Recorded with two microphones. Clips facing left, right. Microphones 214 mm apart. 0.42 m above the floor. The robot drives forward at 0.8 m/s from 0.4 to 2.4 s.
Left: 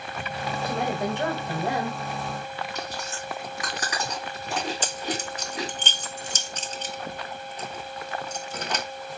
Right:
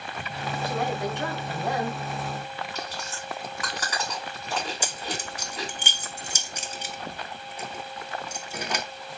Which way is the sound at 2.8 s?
15° left (ahead or behind).